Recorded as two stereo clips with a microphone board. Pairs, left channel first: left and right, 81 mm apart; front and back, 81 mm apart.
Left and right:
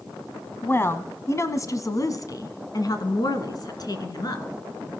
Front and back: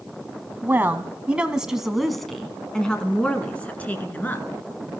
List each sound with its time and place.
0.6 s a woman speaking: 130° left, 1.4 m; by 4.5 s 65° left, 2.5 m